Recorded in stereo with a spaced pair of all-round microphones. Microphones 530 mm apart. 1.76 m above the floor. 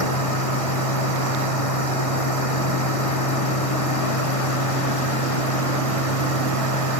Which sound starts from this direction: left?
A machine running, at 0.0 s.